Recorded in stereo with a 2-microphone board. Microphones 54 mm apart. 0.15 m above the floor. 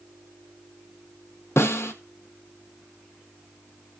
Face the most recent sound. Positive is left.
turn(degrees=55)  # may be behind; listen again after turning